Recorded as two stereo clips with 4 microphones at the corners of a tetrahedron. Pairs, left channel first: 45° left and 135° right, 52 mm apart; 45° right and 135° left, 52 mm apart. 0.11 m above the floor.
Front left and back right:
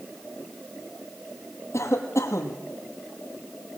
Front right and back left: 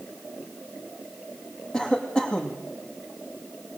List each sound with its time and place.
1.7 s a cough: 30° left, 3.5 m